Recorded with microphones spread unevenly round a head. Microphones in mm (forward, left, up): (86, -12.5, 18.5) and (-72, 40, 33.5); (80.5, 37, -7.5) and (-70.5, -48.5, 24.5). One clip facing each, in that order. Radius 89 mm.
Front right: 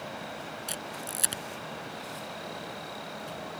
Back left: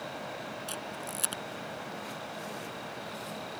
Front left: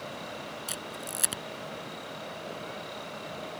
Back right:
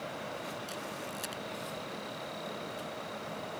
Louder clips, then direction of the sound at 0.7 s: Even, front left 1 dB; 55° left.